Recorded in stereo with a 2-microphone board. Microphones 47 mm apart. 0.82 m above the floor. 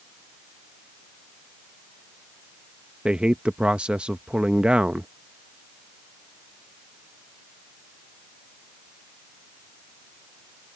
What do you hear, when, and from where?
3.0 s a man speaking: 25° right (ahead or behind)